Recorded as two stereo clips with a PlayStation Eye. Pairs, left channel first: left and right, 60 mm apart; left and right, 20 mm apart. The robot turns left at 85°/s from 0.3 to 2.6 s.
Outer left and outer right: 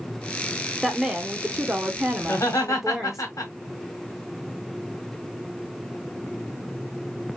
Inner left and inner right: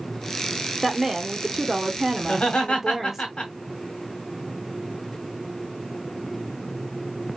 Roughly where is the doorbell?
I don't hear a doorbell.